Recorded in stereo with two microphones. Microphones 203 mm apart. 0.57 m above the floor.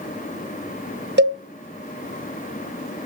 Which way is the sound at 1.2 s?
60° right (ahead or behind).